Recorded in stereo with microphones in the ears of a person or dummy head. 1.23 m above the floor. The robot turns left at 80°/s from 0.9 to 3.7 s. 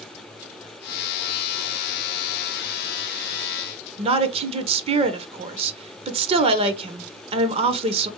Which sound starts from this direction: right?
A woman speaking, at 4.0 s.